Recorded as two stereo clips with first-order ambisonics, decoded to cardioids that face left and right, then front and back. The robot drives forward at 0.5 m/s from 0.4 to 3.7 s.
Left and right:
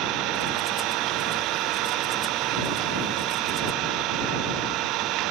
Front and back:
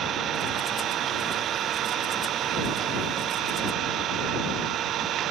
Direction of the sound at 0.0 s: 125° right.